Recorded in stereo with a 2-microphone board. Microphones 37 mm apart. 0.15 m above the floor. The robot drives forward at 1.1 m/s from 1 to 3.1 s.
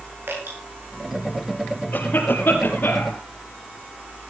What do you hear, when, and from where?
0.3 s dripping: 80° right, 8.5 m
1.9 s a cough: 60° left (ahead or behind), 4 m; by 3.2 s 65° left (ahead or behind), 3.5 m